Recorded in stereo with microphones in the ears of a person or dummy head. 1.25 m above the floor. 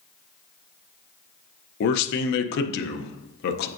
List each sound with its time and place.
1.8 s a man speaking: 60° left (ahead or behind), 0.5 m